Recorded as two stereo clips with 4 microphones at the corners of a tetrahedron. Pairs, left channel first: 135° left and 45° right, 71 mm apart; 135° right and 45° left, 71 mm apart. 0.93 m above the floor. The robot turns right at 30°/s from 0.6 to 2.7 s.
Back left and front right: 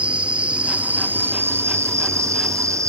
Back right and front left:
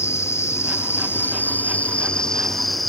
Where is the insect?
110° right; by 2.9 s 45° right.